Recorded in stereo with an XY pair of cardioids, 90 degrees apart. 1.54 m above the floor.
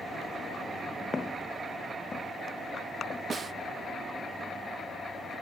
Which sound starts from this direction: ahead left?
Footsteps, at 1.1 s.